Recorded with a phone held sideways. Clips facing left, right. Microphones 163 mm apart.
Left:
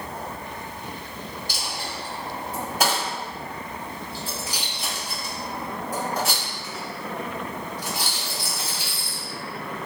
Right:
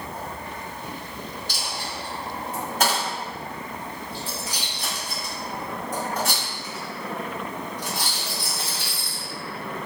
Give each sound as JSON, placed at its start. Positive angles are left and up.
{"t": 1.5, "sound": "a dropped coin", "side_deg": 10, "distance_m": 1.9}